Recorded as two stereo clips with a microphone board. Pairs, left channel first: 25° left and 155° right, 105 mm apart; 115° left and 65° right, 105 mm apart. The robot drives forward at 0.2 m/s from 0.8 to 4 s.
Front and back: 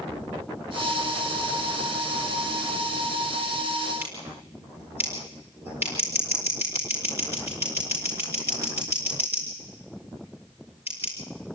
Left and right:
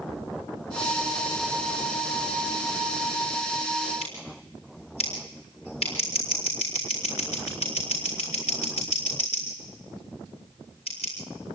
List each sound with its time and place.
4.0 s scissors: 135° left, 6 m